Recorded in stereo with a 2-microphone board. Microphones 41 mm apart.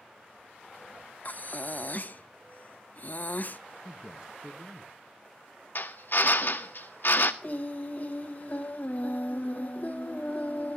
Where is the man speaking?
20° right (ahead or behind), 1.3 m.